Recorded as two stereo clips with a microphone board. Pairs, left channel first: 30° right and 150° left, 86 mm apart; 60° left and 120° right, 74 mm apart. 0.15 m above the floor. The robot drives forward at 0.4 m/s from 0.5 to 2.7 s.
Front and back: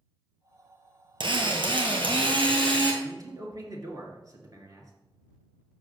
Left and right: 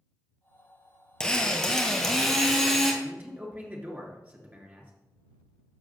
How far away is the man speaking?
About 2 m.